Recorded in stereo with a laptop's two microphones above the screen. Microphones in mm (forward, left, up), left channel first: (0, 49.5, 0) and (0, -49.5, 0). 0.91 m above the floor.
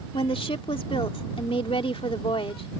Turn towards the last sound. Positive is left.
turn(degrees=70)  # may be behind; listen again after turning